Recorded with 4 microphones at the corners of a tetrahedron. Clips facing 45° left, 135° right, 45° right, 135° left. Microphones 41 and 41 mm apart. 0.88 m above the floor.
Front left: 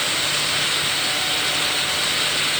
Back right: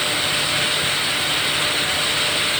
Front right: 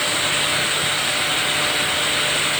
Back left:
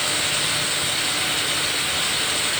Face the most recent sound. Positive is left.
No sound to turn to.